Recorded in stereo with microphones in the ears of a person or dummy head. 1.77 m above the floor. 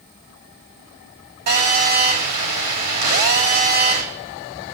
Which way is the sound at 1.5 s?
55° right (ahead or behind).